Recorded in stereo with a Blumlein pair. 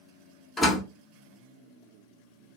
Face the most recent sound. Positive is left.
turn(degrees=15)